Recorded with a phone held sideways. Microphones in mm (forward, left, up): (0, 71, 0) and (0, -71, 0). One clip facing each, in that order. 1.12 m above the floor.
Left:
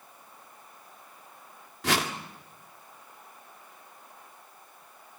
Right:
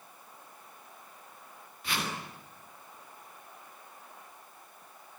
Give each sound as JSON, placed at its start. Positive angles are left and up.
{"t": 1.8, "sound": "a whoosh", "side_deg": 80, "distance_m": 2.0}